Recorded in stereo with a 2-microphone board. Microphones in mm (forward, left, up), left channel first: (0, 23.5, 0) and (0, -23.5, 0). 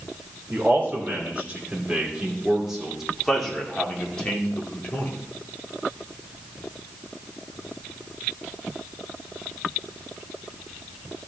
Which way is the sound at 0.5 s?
35° right (ahead or behind).